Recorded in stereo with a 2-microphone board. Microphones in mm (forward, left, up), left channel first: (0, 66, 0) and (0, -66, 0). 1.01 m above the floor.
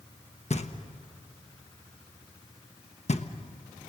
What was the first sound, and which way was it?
Knocking, 55° left (ahead or behind).